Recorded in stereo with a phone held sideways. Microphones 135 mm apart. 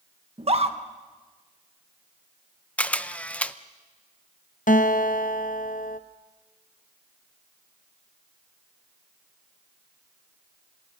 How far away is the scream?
About 1.5 m.